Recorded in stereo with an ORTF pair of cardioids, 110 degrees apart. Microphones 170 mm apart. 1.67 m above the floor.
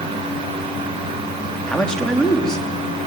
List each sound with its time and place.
0.0 s a fan: 30° right, 8 m
1.7 s a man speaking: 5° left, 3.5 m